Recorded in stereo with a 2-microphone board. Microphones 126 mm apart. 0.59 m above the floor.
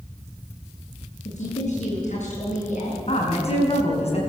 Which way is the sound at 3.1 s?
55° left (ahead or behind).